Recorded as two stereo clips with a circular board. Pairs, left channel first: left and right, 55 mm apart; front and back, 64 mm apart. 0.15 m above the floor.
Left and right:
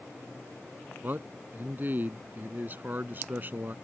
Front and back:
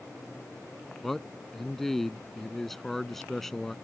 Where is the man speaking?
80° right.